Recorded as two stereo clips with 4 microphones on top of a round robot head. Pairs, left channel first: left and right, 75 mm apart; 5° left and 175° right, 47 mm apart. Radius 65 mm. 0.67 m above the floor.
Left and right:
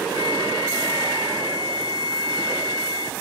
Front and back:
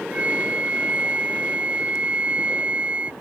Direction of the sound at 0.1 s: 120° left.